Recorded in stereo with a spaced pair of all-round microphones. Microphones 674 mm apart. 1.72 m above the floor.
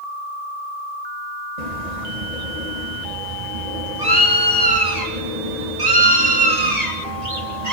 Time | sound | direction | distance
1.6 | a bird | 80° right | 2 m